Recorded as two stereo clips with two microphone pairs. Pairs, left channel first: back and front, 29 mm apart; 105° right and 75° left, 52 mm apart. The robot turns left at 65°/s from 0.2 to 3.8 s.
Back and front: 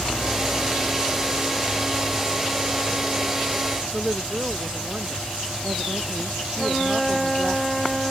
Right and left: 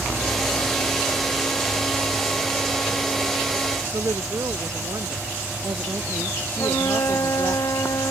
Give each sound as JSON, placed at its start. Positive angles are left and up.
{"t": 3.9, "sound": "a woman speaking", "azimuth_deg": 55}
{"t": 6.6, "sound": "a flute", "azimuth_deg": -95}